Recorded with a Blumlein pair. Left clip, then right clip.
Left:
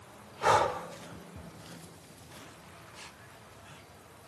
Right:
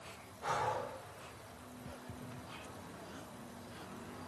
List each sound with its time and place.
0.4 s breathing: 40° left, 2.5 m